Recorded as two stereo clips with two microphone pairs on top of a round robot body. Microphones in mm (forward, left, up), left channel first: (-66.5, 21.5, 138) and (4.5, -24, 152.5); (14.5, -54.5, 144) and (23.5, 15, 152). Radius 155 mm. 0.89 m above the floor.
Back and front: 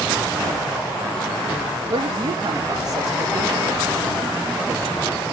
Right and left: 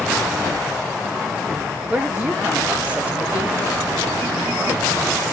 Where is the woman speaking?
15° left, 1.4 m.